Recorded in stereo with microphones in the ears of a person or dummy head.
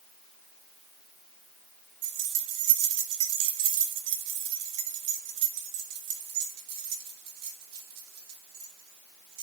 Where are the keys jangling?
75° right (ahead or behind), 3 m; by 9.4 s 55° right (ahead or behind), 5.5 m.